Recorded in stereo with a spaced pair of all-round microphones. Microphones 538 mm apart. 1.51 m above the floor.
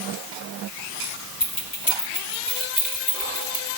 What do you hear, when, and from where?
1.4 s keys jangling: 40° left (ahead or behind), 3.5 m; by 3.7 s 30° left (ahead or behind), 5 m